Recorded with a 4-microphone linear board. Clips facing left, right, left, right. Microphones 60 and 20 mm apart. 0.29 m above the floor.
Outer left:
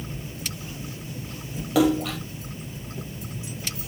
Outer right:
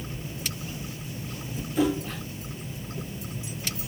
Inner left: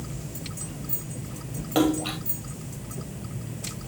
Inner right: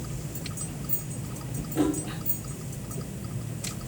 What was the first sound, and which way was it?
A splash, 80° left.